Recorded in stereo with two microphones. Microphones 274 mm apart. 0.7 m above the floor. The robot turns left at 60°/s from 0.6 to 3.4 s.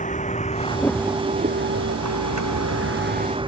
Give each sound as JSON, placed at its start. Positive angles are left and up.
{"t": 0.0, "sound": "a vehicle", "side_deg": 25}